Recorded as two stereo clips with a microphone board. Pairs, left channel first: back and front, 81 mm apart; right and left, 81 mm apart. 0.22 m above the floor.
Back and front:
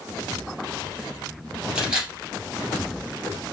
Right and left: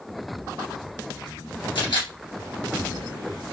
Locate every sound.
1.8 s a camera shutter: 75° right, 3 m